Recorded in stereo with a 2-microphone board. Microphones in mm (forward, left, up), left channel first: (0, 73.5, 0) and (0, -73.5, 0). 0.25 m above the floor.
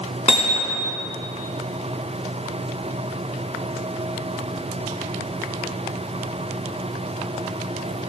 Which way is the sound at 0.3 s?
45° left (ahead or behind).